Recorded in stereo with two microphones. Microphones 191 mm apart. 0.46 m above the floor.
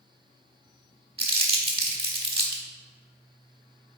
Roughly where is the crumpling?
Right.